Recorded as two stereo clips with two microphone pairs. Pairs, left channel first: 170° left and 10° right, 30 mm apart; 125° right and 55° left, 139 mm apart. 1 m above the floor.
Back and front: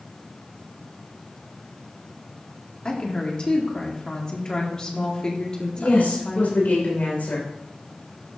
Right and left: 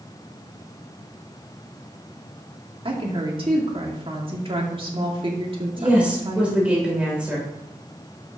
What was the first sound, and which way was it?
A woman speaking, 105° left.